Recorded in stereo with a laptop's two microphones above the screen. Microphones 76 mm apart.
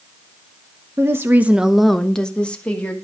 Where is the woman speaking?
35° right (ahead or behind), 1.0 m; by 2.9 s 20° left (ahead or behind), 2.5 m.